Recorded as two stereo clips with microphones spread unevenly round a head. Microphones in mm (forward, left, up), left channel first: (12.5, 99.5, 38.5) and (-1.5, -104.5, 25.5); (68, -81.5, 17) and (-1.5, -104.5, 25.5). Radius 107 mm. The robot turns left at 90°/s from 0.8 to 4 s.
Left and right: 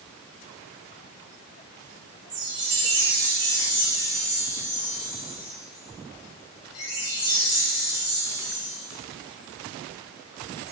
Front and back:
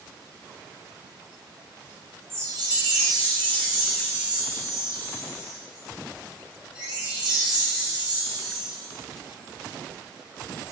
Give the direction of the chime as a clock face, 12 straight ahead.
3 o'clock.